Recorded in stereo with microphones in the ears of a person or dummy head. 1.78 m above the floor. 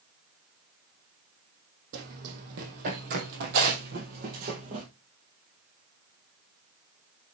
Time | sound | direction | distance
1.9 | running footsteps | 55° right (ahead or behind) | 3 m